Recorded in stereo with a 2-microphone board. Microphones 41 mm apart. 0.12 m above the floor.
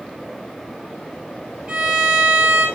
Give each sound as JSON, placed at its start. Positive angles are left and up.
{"t": 1.7, "sound": "a violin", "side_deg": -15, "distance_m": 2.5}